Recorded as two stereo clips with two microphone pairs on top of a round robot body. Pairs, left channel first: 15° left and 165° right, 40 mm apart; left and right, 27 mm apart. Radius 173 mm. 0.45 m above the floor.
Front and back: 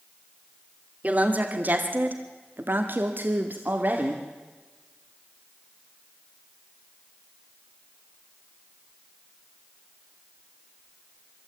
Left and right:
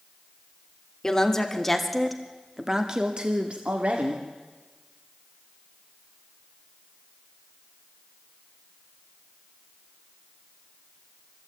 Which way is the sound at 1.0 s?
145° left.